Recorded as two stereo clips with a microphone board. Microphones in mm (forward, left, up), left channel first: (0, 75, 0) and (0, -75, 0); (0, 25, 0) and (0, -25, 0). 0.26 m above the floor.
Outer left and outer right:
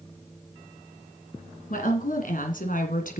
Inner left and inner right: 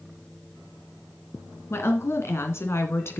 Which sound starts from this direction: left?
A woman speaking, at 1.7 s.